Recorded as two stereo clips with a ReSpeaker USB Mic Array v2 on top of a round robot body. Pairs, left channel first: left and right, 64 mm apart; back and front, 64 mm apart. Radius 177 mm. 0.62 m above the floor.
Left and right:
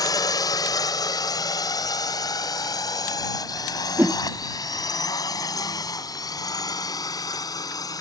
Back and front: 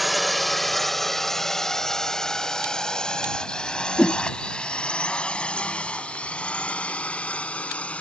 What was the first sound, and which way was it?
A drone, 90° left.